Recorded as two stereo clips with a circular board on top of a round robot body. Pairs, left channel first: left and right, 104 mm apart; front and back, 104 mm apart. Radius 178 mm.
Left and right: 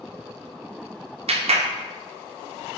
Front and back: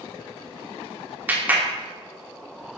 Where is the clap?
105° right, 2 m.